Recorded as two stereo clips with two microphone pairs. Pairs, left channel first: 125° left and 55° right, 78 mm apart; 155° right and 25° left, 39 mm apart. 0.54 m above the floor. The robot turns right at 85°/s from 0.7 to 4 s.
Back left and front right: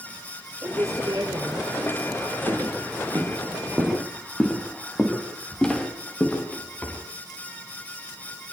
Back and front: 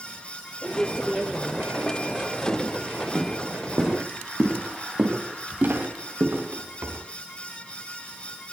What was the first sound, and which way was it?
A woman speaking, 115° right.